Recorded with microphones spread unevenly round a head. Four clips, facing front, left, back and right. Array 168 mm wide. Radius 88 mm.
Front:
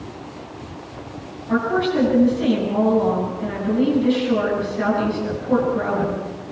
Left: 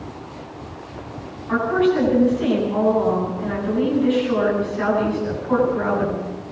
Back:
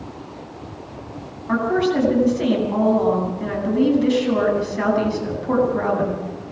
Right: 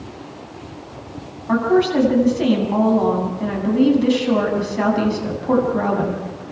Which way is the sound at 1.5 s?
120° right.